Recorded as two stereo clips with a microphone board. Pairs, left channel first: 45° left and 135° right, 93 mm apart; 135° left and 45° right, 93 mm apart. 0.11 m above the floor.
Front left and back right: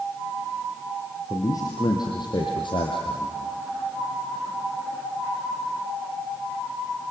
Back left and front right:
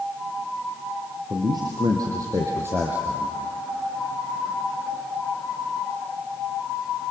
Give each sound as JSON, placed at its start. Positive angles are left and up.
{"t": 1.3, "sound": "a man speaking", "azimuth_deg": -10, "distance_m": 4.0}